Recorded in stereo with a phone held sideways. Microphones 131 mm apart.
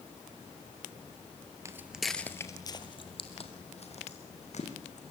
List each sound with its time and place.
1.6 s footsteps: 20° right (ahead or behind), 1.4 m; by 5.0 s 60° left (ahead or behind), 5 m